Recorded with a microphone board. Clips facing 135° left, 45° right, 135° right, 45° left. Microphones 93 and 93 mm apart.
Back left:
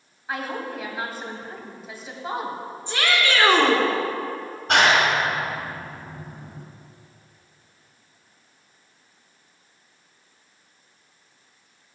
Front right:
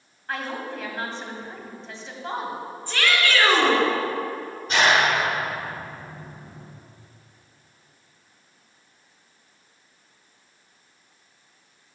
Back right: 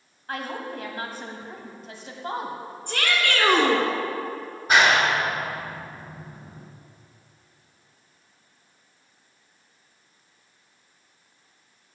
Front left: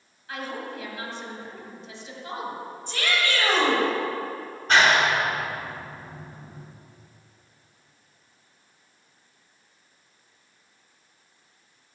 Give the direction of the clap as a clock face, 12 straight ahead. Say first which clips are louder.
Back left 1 dB, even; 7 o'clock.